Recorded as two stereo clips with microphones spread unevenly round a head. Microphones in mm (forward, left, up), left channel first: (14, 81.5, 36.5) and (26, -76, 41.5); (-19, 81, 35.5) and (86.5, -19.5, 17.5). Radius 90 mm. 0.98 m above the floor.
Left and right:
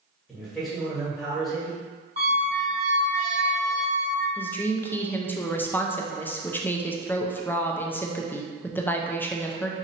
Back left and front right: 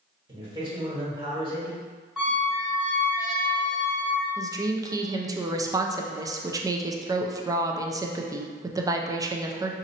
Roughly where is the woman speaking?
Ahead.